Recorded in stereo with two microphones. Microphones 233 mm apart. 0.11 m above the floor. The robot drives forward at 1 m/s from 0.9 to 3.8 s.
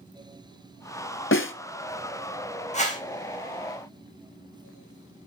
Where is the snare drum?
60° left (ahead or behind), 0.7 m; by 1.5 s 55° left (ahead or behind), 0.7 m.